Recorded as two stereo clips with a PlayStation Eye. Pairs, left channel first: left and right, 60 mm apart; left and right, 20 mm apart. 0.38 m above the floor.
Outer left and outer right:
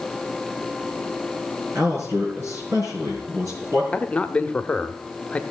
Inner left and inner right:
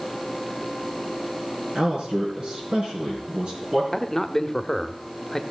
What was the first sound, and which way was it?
A man speaking, 55° right (ahead or behind).